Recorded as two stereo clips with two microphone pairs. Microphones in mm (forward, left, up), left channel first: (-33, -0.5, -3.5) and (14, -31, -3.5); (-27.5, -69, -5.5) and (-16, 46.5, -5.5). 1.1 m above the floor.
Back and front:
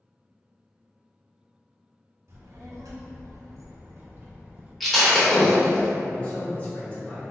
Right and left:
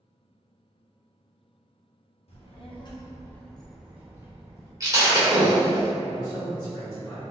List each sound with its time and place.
2.3 s a child speaking: 65° right, 0.9 m; by 4.7 s 30° left, 1.0 m
4.8 s breaking glass: 60° left, 0.8 m
6.1 s a man speaking: 150° right, 1.6 m